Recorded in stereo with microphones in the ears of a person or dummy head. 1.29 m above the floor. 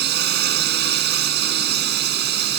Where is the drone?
65° right (ahead or behind).